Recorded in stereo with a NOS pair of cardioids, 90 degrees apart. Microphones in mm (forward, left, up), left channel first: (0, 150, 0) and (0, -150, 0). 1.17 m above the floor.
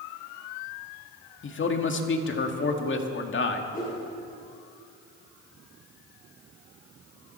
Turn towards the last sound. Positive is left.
turn(degrees=30)